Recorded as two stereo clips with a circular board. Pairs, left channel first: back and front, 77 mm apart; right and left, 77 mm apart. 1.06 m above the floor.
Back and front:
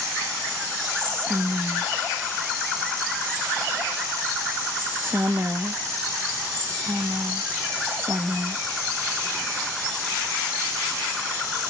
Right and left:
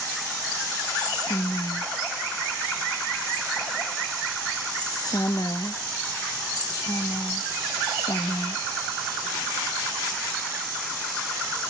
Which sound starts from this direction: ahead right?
Whispering, at 0.9 s.